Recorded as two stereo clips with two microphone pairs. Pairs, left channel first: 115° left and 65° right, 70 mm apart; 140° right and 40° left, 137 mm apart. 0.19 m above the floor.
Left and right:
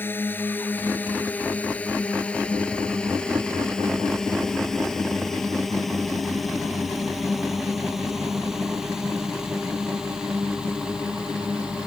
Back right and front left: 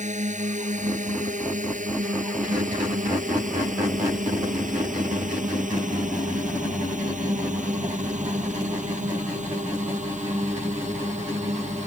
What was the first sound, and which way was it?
A drone, 55° left.